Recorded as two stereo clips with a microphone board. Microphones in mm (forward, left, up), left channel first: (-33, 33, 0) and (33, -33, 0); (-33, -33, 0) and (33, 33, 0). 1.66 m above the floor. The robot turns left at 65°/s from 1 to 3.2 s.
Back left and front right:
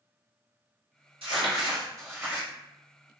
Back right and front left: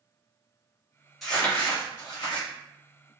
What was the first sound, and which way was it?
Crumpling, 45° right.